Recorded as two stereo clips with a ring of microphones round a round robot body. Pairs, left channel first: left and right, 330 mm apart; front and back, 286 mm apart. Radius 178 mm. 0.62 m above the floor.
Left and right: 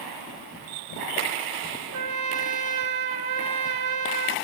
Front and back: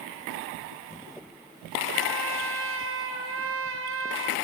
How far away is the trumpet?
About 2 m.